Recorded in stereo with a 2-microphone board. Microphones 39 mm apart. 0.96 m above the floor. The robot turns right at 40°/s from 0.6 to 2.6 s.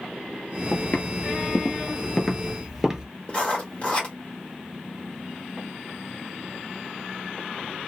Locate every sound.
0.7 s footsteps: 45° left (ahead or behind), 1.4 m; by 3.0 s 20° right (ahead or behind), 1.0 m
3.3 s writing: 40° left (ahead or behind), 1.4 m